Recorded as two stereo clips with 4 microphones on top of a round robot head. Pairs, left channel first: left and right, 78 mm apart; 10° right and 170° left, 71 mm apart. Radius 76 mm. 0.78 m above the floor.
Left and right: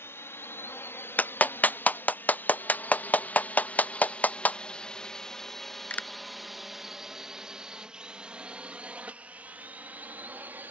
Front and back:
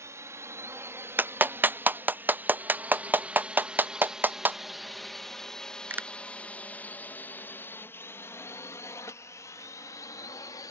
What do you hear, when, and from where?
0.0 s a drone: 140° left; by 10.7 s 25° right
1.2 s a clap: 140° left